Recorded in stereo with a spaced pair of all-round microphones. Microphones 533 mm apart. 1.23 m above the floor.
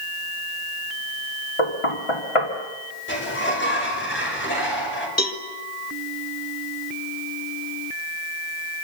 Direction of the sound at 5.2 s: 30° left (ahead or behind).